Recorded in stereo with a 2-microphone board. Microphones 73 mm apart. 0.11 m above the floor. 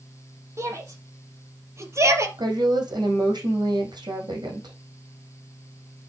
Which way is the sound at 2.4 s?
70° right (ahead or behind).